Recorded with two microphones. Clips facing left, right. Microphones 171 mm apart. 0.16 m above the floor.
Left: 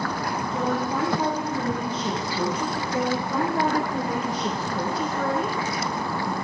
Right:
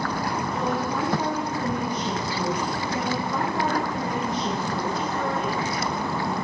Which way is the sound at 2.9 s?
15° left (ahead or behind).